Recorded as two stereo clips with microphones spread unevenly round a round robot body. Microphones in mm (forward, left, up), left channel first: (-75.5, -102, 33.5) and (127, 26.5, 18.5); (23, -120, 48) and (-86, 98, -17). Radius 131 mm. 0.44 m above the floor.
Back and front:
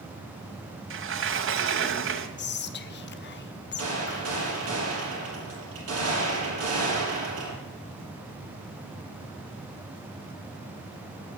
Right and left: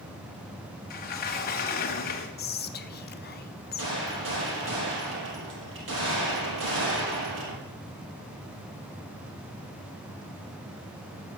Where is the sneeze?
No sneeze in this recording.